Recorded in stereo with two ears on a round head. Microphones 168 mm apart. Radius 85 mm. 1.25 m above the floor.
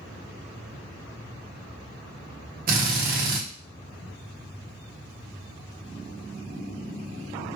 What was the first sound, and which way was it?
A drill, 50° right (ahead or behind).